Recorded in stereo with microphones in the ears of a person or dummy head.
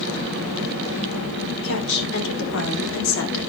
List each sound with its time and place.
1.6 s a woman speaking: 75° left (ahead or behind), 4 m